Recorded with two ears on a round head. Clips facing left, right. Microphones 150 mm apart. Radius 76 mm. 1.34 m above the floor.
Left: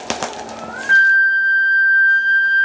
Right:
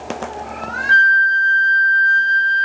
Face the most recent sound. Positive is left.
turn(degrees=-20)  # may be behind; listen again after turning